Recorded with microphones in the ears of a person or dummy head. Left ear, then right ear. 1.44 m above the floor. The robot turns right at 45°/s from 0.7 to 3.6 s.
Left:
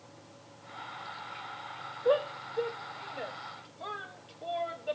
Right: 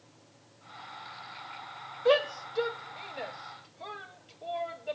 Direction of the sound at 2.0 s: 75° right (ahead or behind).